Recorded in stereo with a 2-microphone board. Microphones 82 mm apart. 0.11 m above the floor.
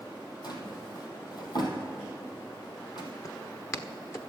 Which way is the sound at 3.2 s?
35° left (ahead or behind).